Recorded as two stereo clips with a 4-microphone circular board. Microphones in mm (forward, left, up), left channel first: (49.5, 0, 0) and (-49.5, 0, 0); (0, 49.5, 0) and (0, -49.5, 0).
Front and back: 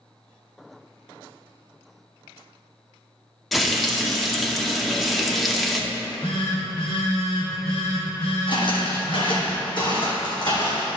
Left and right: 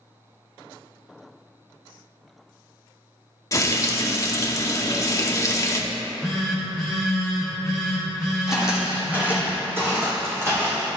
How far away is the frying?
About 0.7 m.